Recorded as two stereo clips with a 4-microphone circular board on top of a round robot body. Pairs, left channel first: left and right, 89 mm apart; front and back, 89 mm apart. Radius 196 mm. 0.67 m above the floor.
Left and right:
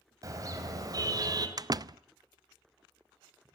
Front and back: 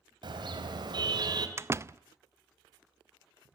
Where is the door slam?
125° right, 0.7 m.